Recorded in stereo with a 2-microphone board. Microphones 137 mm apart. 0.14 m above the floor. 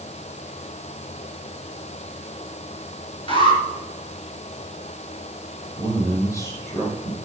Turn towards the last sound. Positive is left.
turn(degrees=20)  # may be behind; listen again after turning